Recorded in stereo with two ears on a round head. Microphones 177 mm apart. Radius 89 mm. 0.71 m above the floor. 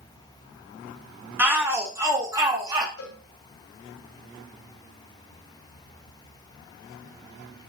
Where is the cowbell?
85° left, 2.5 m.